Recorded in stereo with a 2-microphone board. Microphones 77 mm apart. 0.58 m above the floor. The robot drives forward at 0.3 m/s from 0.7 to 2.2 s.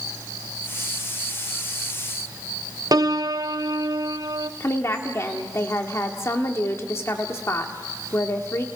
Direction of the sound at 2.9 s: 55° right (ahead or behind).